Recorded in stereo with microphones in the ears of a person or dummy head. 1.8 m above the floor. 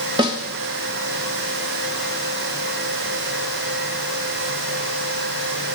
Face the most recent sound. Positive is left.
turn(degrees=-20)  # may be behind; listen again after turning